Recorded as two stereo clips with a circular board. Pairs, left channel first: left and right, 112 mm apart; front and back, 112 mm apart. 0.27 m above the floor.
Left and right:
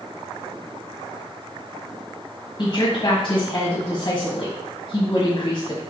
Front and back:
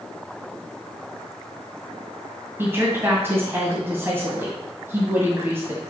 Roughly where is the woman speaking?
Behind left.